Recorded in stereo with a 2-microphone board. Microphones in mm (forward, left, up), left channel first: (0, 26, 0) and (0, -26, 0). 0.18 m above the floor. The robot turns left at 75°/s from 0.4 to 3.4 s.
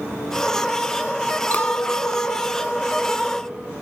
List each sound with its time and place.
1.5 s a clink: 130° left, 0.8 m; by 3.7 s 10° right, 0.8 m